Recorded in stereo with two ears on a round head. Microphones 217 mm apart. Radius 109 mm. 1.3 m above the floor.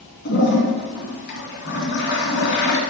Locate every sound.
0.2 s a toilet flushing: 50° left (ahead or behind), 2 m